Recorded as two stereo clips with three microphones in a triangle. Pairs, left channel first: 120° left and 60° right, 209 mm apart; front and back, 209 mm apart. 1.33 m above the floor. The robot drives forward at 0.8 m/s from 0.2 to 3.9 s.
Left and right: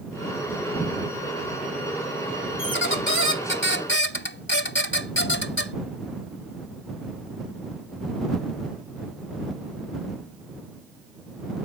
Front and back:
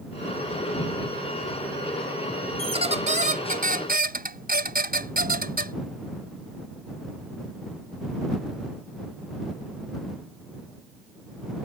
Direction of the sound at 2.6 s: 120° left.